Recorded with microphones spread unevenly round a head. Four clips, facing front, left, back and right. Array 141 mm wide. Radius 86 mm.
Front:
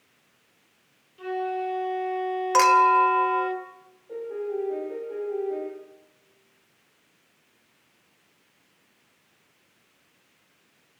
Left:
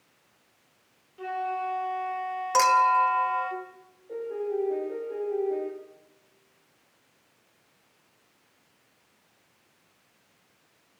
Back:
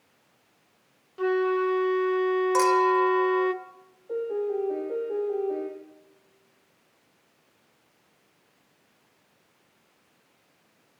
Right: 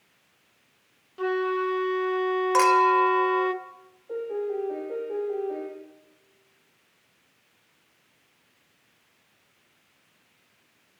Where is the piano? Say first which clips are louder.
Right 1 dB, back 3 dB; 170° left, 8 m.